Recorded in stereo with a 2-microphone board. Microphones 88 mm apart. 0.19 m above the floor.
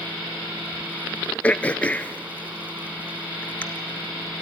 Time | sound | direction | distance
1.4 | throat clearing | 15° left (ahead or behind) | 0.6 m